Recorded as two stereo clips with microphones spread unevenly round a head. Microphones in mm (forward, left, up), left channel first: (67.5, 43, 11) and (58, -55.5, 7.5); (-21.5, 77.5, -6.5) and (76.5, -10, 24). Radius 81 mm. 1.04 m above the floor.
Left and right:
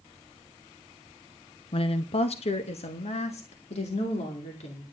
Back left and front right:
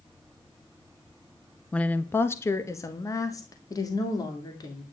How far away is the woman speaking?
About 0.7 m.